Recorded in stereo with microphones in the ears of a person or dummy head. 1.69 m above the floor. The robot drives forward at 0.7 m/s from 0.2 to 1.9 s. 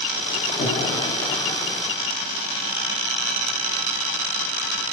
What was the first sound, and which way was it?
Breathing, 50° left (ahead or behind).